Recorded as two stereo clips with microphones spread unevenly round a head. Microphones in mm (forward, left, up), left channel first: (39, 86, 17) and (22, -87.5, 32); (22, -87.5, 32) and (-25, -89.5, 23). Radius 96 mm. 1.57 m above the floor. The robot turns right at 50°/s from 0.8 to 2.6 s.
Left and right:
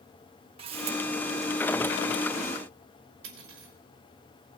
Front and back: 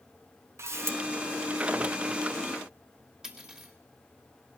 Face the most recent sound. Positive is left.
turn(degrees=-105)